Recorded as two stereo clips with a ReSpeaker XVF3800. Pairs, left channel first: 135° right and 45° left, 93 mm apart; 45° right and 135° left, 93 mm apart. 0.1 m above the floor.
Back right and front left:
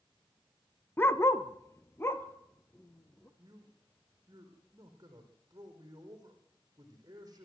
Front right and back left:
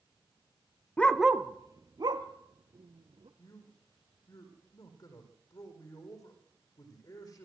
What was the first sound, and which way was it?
A dog barking, 100° right.